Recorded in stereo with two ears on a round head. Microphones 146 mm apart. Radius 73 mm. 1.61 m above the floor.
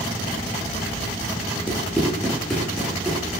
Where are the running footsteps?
10° left (ahead or behind), 7 m; by 3.2 s 5° right (ahead or behind), 8.5 m.